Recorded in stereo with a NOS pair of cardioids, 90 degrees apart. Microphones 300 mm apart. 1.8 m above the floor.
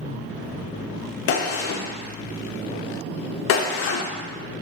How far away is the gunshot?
About 0.5 m.